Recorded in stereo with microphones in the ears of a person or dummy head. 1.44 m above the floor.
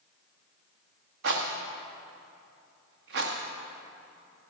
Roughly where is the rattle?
Right.